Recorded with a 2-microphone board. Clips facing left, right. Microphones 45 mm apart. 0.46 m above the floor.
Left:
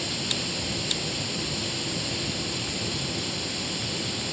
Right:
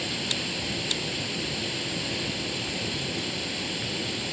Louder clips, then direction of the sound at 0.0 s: Even; 10° right (ahead or behind).